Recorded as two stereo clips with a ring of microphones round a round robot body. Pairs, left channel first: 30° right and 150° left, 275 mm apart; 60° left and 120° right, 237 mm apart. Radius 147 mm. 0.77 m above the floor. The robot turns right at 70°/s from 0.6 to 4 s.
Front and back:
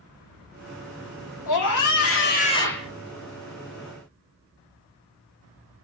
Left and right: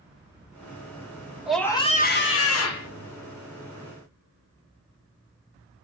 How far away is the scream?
About 1.5 m.